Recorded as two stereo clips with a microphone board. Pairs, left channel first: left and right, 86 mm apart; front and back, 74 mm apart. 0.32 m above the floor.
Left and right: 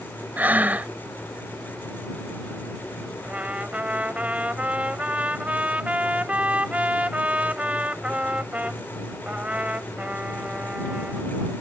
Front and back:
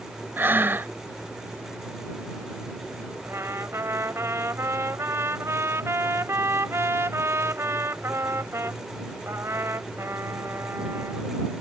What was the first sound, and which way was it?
Breathing, 145° right.